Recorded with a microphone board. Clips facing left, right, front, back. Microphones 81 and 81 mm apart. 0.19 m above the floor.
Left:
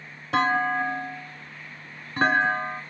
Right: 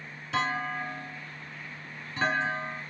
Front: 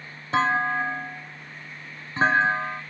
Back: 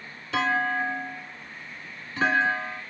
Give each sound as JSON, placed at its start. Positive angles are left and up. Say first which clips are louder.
{"t": 0.3, "sound": "a clunk", "louder": "left 8 dB, front 2 dB", "azimuth_deg": 50, "distance_m": 0.5}